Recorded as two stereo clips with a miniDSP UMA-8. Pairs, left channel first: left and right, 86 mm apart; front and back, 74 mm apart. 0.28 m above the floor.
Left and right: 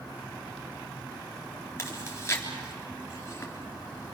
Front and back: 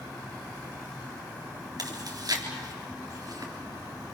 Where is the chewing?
150° left, 3.5 m.